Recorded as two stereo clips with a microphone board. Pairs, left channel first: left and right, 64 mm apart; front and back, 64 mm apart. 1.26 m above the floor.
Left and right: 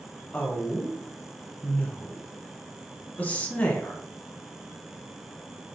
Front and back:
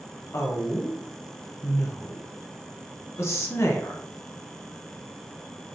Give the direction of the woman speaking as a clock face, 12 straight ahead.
11 o'clock.